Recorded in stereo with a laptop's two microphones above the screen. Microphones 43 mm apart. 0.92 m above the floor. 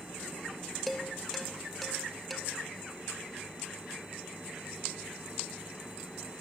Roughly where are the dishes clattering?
Centre.